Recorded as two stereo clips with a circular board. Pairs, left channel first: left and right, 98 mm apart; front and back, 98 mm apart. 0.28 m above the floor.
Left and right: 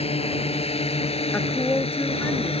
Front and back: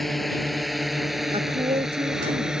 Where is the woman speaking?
160° left.